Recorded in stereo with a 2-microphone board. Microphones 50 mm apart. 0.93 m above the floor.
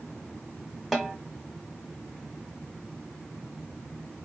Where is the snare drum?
Centre (ahead or behind), 0.9 m.